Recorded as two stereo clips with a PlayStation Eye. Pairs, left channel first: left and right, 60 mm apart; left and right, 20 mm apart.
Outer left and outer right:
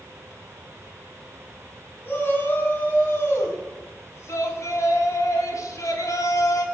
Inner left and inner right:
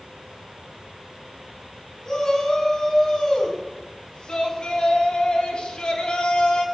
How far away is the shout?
About 4.5 m.